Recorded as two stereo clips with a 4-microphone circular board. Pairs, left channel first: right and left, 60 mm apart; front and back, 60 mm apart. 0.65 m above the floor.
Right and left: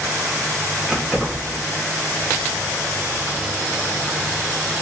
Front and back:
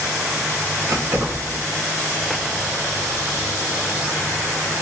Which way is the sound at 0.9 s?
175° left.